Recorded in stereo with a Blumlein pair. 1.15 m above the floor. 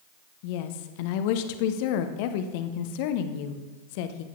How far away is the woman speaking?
About 0.8 m.